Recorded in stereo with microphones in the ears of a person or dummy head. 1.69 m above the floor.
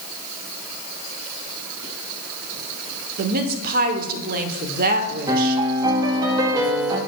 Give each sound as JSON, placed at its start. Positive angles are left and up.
{"t": 3.2, "sound": "a woman speaking", "side_deg": -55, "distance_m": 0.9}
{"t": 5.3, "sound": "a piano", "side_deg": -25, "distance_m": 1.6}